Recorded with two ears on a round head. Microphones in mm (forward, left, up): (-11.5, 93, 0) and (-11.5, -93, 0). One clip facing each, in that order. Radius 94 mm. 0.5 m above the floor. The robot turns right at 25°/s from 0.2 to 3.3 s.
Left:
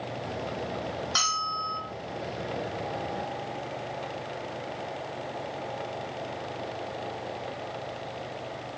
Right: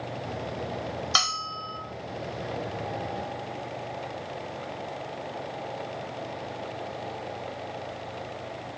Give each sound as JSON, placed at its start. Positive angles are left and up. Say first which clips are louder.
{"t": 1.1, "sound": "a bell", "louder": "right 1 dB", "side_deg": -70, "distance_m": 1.7}